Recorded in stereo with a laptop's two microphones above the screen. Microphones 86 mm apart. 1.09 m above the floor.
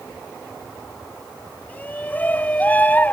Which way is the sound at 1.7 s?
20° left (ahead or behind).